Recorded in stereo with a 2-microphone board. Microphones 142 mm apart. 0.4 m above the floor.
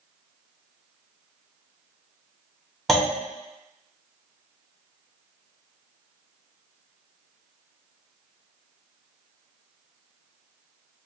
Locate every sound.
2.9 s a clunk: centre (ahead or behind), 1.0 m